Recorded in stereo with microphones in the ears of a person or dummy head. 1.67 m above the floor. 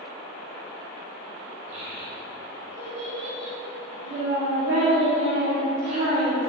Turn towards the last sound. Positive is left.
turn(degrees=-40)  # may be behind; listen again after turning